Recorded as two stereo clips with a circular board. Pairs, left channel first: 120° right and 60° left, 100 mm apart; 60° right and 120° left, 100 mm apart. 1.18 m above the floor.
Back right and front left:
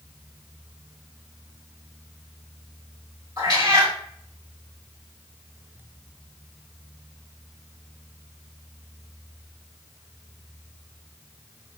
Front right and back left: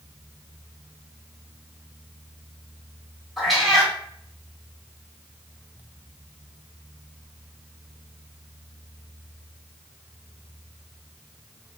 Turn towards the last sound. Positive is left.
turn(degrees=30)